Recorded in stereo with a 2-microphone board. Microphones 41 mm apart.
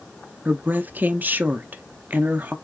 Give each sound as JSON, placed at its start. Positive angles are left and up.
{"t": 0.5, "sound": "a woman speaking", "side_deg": -45, "distance_m": 0.6}